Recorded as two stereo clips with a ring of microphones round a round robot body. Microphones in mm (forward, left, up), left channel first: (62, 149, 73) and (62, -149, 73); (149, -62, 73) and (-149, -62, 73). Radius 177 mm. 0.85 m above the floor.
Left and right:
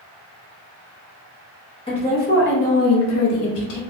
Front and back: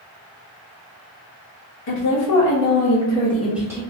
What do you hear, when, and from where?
1.9 s a woman speaking: 20° left, 1.1 m; by 3.8 s 100° left, 1.2 m